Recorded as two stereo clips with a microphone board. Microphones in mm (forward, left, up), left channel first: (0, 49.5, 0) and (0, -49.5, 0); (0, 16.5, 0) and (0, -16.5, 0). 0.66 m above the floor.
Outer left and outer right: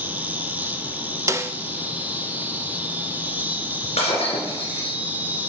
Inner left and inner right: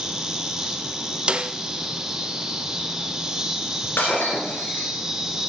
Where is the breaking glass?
85° left, 3 m.